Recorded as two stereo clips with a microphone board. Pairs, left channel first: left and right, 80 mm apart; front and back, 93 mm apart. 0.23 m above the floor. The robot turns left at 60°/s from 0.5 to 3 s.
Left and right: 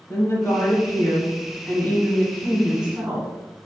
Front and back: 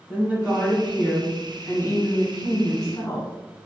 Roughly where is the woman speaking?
Behind left.